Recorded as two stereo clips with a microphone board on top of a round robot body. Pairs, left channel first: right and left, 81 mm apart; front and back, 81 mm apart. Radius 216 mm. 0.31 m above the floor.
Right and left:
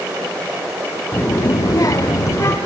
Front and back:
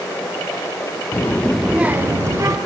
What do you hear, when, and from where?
1.1 s a child speaking: 35° right, 1.2 m; by 2.6 s 140° right, 2 m